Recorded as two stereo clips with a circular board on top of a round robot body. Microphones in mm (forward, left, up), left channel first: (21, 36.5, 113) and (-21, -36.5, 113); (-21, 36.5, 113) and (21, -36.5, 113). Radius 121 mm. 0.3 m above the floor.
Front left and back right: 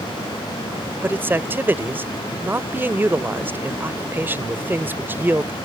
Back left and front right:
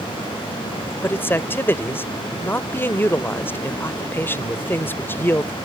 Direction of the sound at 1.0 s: Straight behind.